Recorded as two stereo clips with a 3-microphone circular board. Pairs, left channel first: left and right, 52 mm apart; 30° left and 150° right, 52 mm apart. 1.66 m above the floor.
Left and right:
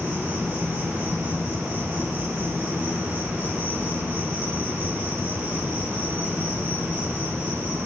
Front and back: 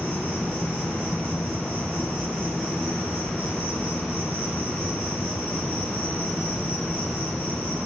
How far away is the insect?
About 2 m.